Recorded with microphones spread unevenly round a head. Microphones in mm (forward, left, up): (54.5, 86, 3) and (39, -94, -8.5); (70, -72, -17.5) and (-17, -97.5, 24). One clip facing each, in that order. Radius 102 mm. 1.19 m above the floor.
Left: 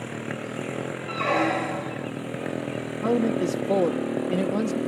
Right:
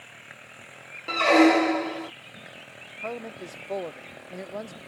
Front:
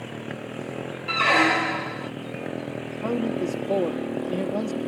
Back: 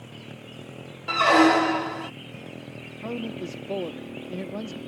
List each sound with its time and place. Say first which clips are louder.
0.0 s a motorcycle: left 20 dB, front 9 dB; 70° left
1.1 s a squeak: right 8 dB, back 4 dB; 135° right
3.0 s a man speaking: left 13 dB, front 7 dB; 80° left